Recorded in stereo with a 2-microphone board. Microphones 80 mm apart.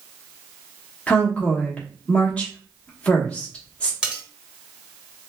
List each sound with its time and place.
1.1 s a woman speaking: 15° left (ahead or behind), 1.2 m
4.0 s cutlery clinking: 10° right (ahead or behind), 1.1 m